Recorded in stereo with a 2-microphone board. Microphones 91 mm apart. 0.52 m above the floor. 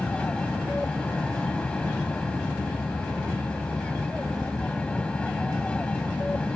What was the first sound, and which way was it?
An aircraft, 10° left (ahead or behind).